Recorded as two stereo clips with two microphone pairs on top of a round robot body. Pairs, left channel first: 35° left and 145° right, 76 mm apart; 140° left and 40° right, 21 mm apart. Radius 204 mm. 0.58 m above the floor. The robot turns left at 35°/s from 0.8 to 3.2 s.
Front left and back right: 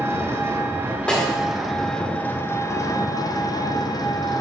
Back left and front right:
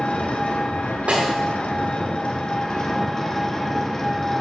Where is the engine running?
155° left, 0.7 m; by 4.4 s 70° left, 0.7 m.